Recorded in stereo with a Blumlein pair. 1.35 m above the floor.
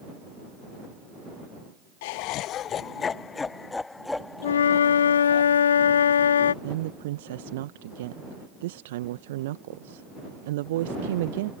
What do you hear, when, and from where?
2.0 s laughter: 50° left; by 5.4 s straight ahead
4.4 s a flute: 65° left
6.6 s a woman speaking: 55° right